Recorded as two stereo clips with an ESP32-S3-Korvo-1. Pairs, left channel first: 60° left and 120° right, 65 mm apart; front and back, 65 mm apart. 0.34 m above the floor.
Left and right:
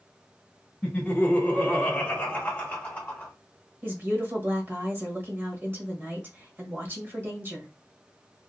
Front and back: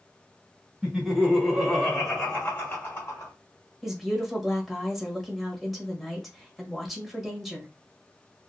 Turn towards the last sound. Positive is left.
turn(degrees=-90)